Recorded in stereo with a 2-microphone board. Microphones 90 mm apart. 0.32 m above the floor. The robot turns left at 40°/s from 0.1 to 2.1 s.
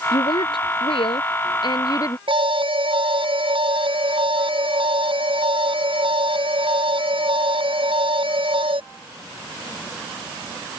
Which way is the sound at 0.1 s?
120° left.